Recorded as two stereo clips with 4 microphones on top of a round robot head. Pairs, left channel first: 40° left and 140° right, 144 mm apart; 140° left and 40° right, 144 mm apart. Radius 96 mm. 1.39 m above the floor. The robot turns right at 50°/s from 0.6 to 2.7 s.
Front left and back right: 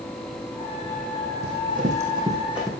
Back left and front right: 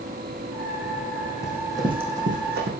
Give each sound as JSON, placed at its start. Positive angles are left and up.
{"t": 1.4, "sound": "running footsteps", "azimuth_deg": -125, "distance_m": 3.0}